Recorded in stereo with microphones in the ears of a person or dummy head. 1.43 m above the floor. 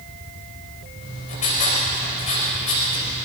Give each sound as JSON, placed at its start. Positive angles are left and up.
{"t": 1.0, "sound": "writing", "side_deg": 40, "distance_m": 6.5}